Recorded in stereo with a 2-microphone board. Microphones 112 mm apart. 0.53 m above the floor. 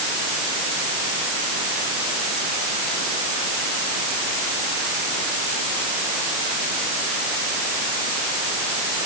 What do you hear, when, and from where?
Only background noise.